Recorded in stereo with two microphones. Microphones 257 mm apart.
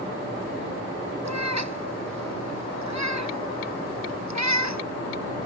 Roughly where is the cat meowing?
Right.